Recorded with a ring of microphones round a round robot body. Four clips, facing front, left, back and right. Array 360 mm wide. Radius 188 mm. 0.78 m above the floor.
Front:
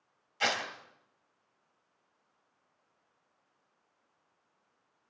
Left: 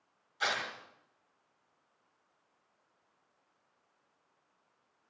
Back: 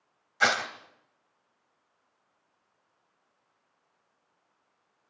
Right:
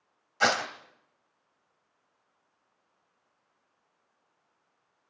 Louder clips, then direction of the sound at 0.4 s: Right 9 dB, back 7 dB; 105° right.